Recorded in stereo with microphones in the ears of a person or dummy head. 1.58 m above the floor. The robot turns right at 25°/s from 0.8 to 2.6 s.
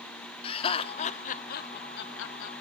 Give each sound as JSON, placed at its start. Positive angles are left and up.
{"t": 0.4, "sound": "laughter", "side_deg": 25, "distance_m": 0.8}